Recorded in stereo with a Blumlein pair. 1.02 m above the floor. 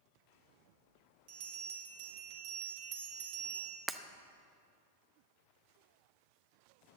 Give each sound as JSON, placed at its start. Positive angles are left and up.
{"t": 1.3, "sound": "a bell", "azimuth_deg": -45, "distance_m": 1.9}
{"t": 3.9, "sound": "breaking glass", "azimuth_deg": -10, "distance_m": 0.6}